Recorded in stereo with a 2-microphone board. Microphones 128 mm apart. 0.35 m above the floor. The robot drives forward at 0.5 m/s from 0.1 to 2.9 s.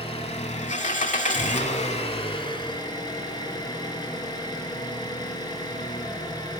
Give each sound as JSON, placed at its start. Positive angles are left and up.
{"t": 0.0, "sound": "an engine running", "side_deg": 50, "distance_m": 0.8}